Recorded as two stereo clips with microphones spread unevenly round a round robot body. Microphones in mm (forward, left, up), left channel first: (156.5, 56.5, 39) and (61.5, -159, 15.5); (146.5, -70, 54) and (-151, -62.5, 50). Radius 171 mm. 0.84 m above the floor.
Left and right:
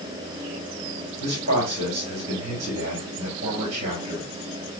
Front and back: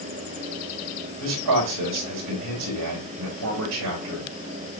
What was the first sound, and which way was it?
A man speaking, 175° left.